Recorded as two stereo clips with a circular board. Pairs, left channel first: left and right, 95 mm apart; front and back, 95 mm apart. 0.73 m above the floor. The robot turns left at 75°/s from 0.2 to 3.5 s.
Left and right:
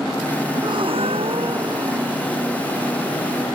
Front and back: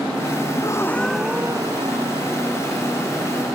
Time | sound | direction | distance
0.5 | a gasp | 45° right | ?